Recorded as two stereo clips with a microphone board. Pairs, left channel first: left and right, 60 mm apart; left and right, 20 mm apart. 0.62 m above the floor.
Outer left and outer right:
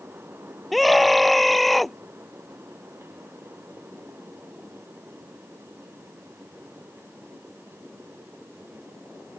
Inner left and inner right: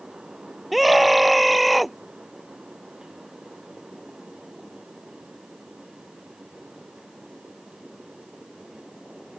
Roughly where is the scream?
Centre.